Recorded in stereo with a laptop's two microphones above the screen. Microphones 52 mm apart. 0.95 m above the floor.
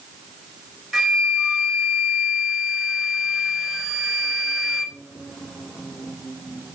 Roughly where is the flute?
Centre.